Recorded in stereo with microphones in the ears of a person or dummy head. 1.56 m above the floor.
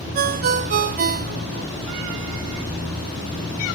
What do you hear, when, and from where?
0.1 s a ringtone: 40° right (ahead or behind), 0.6 m